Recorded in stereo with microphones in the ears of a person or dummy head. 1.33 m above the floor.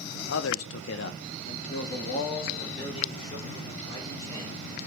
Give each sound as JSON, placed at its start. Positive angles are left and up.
{"t": 0.3, "sound": "a man speaking", "side_deg": 70, "distance_m": 0.8}